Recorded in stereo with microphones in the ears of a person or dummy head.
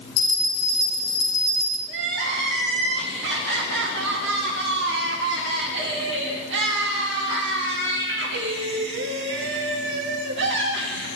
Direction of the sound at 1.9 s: 60° right (ahead or behind).